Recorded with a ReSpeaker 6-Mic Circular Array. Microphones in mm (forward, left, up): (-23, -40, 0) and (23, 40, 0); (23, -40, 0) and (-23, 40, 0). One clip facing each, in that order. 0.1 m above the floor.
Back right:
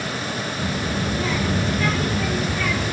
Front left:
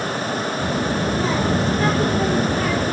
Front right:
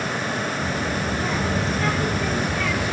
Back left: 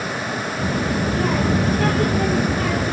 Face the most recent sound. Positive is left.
turn(degrees=90)